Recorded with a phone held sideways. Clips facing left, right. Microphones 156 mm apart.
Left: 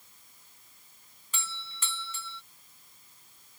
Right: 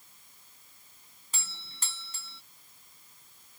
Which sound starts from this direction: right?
A doorbell, at 1.3 s.